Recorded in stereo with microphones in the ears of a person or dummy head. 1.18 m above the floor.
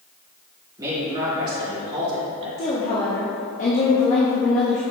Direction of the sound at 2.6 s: 40° left (ahead or behind).